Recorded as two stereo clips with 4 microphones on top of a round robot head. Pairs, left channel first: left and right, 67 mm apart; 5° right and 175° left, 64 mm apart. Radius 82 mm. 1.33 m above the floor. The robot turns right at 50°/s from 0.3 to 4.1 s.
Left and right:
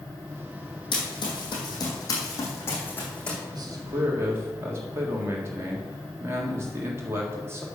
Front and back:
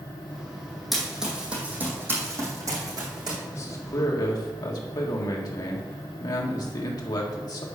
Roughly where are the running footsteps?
Left.